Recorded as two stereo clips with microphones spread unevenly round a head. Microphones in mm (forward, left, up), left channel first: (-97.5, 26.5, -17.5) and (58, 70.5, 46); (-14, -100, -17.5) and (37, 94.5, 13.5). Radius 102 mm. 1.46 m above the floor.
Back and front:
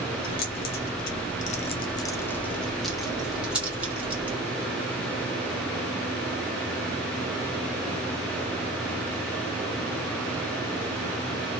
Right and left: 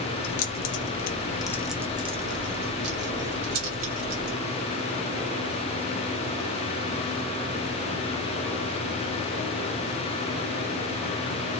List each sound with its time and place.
0.2 s keys jangling: 105° right, 0.9 m; by 4.4 s 90° left, 1.8 m